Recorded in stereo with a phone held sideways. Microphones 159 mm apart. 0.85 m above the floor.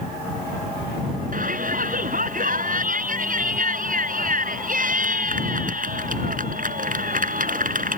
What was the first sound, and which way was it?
A shout, 60° right (ahead or behind).